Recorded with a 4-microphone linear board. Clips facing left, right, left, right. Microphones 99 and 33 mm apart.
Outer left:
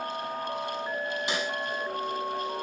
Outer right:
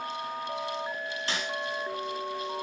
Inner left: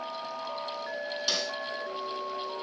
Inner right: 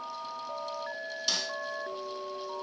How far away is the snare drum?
About 4.5 m.